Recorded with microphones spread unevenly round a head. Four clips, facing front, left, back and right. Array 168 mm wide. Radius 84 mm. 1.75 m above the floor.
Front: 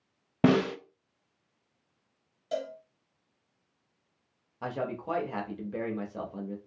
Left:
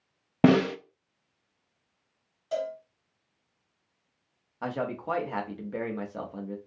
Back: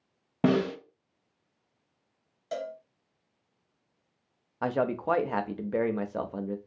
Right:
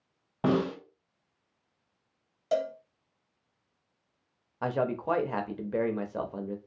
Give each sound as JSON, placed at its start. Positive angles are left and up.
{"t": 0.4, "sound": "a snare drum", "azimuth_deg": 65, "distance_m": 0.6}
{"t": 2.5, "sound": "a cowbell", "azimuth_deg": -90, "distance_m": 0.7}
{"t": 4.6, "sound": "a man speaking", "azimuth_deg": -165, "distance_m": 0.6}